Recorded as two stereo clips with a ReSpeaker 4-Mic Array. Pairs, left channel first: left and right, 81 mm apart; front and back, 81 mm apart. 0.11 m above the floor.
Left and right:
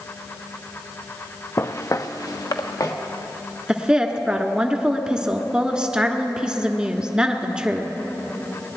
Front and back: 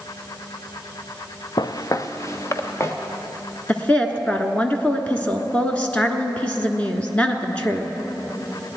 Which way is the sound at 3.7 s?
35° right.